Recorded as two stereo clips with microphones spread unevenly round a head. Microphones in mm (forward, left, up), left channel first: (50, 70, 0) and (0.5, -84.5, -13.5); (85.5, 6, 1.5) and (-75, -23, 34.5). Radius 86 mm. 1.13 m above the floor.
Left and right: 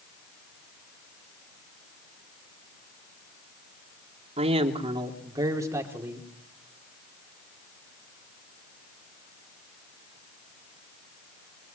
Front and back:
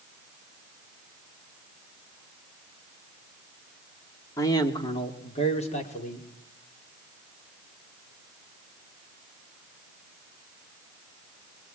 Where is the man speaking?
60° right, 3 m; by 6.3 s 30° right, 4 m.